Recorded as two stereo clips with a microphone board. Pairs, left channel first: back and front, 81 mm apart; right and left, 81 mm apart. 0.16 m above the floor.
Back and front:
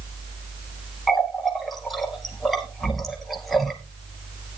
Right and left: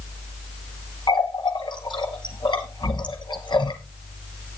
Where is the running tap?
90° right, 2.5 m.